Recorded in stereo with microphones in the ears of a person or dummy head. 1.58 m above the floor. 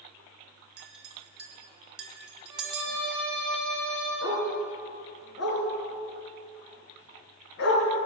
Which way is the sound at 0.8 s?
5° right (ahead or behind).